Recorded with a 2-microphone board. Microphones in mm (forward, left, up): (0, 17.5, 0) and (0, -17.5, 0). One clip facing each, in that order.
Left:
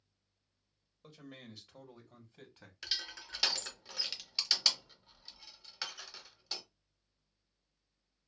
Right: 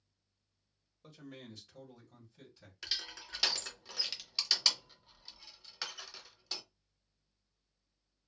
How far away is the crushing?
About 0.8 m.